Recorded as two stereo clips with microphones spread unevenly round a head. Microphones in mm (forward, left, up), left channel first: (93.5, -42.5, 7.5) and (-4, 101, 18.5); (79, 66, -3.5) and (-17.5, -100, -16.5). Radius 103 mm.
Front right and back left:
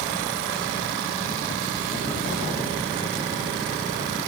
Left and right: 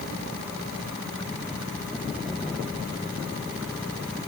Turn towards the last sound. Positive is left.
No sound to turn to.